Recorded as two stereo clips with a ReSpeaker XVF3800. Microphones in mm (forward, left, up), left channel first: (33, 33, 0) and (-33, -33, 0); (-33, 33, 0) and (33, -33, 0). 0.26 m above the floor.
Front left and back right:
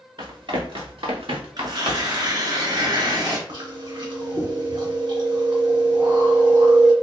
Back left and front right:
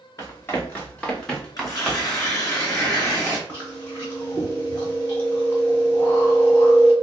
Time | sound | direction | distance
0.2 | running footsteps | 165° right | 1.8 m
1.6 | tearing paper | 170° right | 2 m
3.5 | chewing | 160° right | 2.5 m